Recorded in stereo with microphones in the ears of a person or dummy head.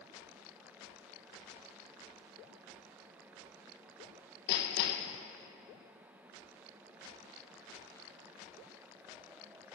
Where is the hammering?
55° left (ahead or behind), 1.2 m.